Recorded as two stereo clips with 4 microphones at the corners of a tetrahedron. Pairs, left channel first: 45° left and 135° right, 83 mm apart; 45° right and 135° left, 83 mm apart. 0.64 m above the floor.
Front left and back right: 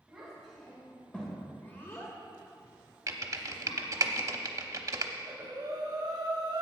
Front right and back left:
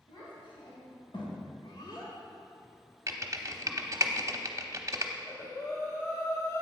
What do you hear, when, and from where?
0.1 s a child speaking: 50° right, 2.5 m; by 4.1 s 45° left, 1.9 m
3.1 s typing on a keyboard: 175° right, 0.8 m
5.1 s breathing: 100° right, 1.9 m